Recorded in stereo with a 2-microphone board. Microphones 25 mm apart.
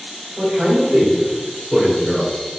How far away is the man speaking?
About 2.5 m.